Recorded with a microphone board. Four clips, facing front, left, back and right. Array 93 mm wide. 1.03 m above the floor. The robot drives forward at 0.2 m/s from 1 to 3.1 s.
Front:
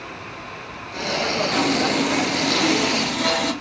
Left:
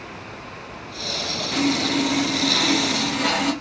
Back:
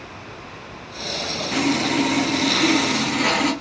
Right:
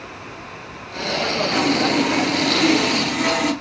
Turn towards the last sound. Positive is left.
turn(degrees=-165)